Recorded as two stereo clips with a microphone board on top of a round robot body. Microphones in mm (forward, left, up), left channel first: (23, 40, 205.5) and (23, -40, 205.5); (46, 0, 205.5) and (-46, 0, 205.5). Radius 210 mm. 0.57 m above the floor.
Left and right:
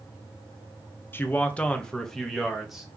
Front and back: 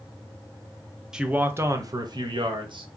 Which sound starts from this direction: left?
A man speaking, at 1.1 s.